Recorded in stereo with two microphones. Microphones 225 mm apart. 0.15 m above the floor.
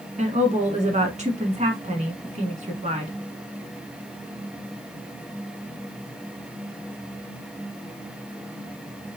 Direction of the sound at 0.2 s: 30° right (ahead or behind).